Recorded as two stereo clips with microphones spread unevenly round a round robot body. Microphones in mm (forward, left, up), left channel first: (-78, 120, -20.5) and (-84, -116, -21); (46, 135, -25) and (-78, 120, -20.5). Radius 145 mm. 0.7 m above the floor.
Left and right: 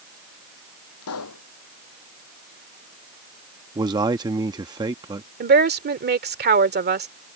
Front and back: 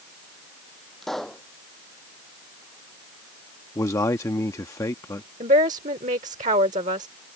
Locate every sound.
1.0 s a pop: 95° left
3.8 s a man speaking: 35° right
5.4 s a woman speaking: 135° right